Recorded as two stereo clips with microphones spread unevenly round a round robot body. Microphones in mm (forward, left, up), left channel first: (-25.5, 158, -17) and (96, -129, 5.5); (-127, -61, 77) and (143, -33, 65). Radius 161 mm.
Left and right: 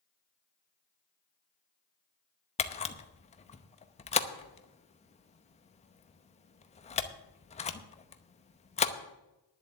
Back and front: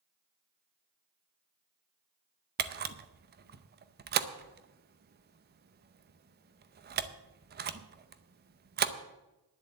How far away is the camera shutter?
About 0.7 m.